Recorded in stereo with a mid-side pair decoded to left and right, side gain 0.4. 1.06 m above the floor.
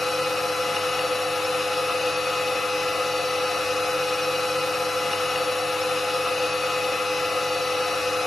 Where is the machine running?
30° left, 0.8 m.